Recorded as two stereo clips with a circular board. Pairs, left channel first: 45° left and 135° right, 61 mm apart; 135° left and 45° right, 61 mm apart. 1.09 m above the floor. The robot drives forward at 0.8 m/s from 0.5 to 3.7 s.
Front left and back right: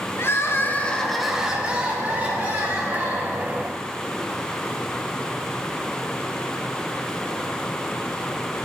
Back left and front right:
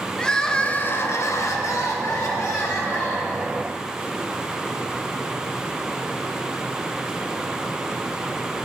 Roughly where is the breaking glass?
I don't hear breaking glass.